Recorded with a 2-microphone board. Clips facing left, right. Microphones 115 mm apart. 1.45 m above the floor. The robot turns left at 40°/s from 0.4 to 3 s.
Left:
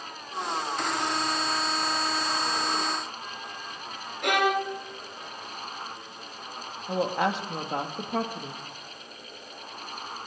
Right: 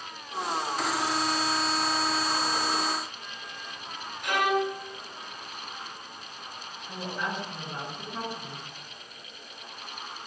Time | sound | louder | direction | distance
4.2 | a violin | left 1 dB | 65° left (ahead or behind) | 3.5 m
6.9 | a woman speaking | left 8 dB | 75° left (ahead or behind) | 2 m